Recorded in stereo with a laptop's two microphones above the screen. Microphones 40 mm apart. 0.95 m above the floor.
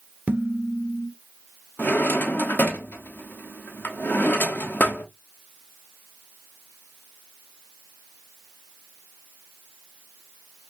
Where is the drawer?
55° left (ahead or behind), 1.0 m.